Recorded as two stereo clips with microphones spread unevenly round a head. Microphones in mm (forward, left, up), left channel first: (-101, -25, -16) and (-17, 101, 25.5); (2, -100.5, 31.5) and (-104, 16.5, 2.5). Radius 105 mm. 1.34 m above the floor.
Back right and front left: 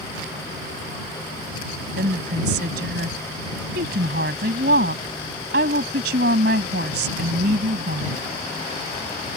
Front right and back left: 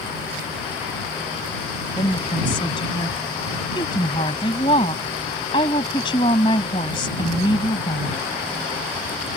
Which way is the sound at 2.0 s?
20° left.